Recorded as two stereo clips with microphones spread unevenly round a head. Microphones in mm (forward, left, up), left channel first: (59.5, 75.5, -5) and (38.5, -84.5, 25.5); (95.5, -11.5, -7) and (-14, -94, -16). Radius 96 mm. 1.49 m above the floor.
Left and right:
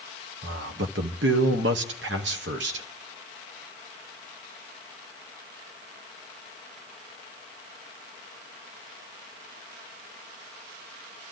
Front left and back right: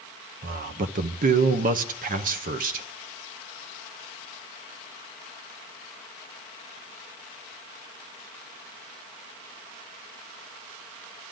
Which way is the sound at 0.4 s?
135° right.